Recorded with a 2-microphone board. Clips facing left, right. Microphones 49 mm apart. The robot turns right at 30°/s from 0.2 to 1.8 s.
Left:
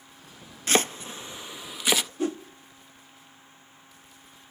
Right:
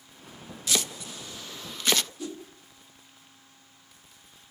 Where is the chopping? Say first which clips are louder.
Left 6 dB; 45° left (ahead or behind), 0.5 m; by 2.1 s 10° left (ahead or behind), 0.5 m.